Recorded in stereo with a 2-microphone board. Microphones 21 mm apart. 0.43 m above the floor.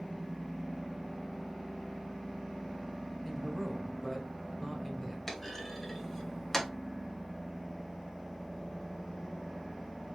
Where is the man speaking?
20° left (ahead or behind), 1.5 m.